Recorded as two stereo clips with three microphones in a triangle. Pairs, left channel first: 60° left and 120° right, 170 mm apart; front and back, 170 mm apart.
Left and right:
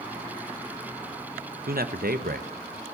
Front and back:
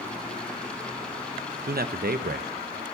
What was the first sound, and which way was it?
A man speaking, 150° right.